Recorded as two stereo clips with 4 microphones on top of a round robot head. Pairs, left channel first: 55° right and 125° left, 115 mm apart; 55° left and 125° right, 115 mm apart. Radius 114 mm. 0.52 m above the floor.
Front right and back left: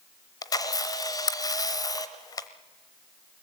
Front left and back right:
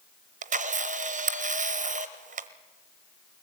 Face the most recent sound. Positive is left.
turn(degrees=-115)